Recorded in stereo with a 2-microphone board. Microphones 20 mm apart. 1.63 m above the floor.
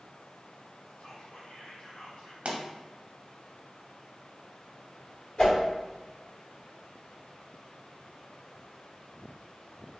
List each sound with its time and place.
1.0 s whispering: 55° left (ahead or behind), 1.4 m
2.5 s a pop: 70° right (ahead or behind), 0.7 m
5.4 s a whoosh: 50° left (ahead or behind), 1.8 m